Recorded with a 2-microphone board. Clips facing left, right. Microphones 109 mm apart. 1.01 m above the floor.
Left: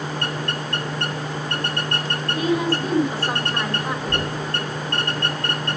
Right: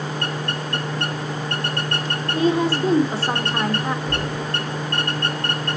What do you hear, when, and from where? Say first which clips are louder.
2.3 s a woman speaking: right 3 dB; 30° right (ahead or behind), 3 m
4.0 s knocking: even; centre (ahead or behind), 6 m